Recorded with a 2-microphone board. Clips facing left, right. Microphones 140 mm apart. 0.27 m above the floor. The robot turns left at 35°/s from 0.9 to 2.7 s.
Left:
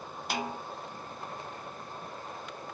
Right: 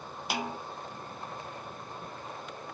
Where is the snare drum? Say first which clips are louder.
Even; 5° right (ahead or behind), 0.6 m.